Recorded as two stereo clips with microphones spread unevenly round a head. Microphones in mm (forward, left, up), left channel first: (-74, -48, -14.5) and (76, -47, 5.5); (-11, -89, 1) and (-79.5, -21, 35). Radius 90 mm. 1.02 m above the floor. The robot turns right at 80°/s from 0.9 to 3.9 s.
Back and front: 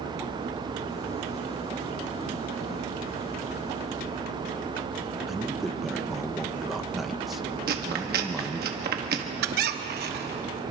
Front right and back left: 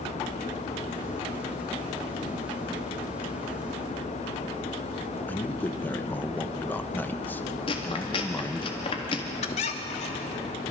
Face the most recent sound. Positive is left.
turn(degrees=-10)